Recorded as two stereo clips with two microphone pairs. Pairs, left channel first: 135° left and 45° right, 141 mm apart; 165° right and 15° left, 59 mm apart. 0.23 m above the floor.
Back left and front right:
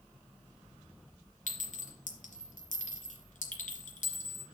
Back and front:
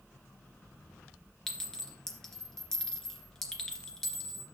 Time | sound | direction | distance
1.5 | a clink | 115° left | 2.5 m